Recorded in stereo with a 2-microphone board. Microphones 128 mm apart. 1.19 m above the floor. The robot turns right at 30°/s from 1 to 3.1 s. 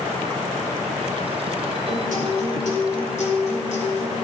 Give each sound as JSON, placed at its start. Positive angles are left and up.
{"t": 1.9, "sound": "a guitar", "azimuth_deg": 80, "distance_m": 4.5}